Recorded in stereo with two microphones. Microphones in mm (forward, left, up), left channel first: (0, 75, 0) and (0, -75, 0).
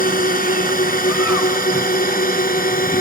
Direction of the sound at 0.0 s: 75° left (ahead or behind).